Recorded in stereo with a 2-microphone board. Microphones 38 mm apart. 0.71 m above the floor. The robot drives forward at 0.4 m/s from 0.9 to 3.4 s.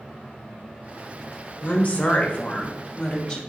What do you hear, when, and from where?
1.6 s a woman speaking: 40° left (ahead or behind), 0.5 m; by 3.4 s 25° left (ahead or behind), 0.8 m